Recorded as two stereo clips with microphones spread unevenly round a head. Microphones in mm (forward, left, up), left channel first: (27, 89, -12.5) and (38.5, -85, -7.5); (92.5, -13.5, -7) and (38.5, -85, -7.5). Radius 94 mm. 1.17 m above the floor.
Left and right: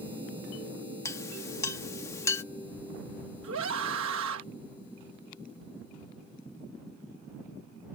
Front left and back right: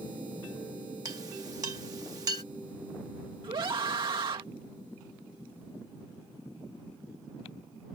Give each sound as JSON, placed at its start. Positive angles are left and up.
{"t": 1.1, "sound": "a clink", "azimuth_deg": 170}
{"t": 3.4, "sound": "a scream", "azimuth_deg": -100}